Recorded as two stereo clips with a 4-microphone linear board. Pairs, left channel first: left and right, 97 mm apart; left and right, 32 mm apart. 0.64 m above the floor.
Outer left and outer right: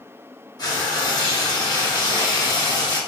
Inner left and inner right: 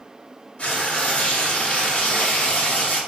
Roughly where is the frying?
Left.